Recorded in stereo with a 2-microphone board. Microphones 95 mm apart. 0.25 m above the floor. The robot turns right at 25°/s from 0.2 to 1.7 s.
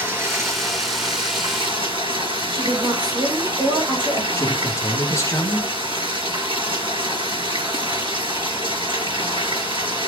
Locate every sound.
0.0 s running water: 150° right, 3 m; by 10.1 s 115° right, 3 m
2.5 s a woman speaking: 55° right (ahead or behind), 5 m
4.4 s a man speaking: 30° left (ahead or behind), 2 m